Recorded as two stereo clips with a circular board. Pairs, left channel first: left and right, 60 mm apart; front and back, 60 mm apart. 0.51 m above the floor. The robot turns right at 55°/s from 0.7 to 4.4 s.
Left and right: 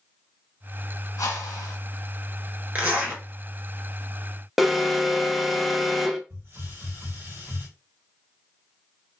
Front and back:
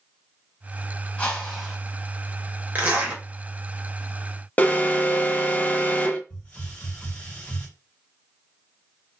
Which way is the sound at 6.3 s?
65° right.